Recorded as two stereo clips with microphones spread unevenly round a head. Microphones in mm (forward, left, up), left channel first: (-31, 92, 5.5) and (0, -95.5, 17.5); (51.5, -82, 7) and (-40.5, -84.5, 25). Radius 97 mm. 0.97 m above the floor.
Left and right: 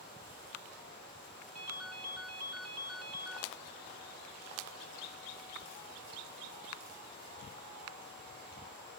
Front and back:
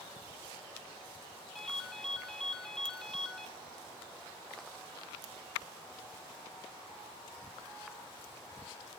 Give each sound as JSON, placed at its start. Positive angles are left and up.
{"t": 1.6, "sound": "a ringtone", "azimuth_deg": -85, "distance_m": 1.8}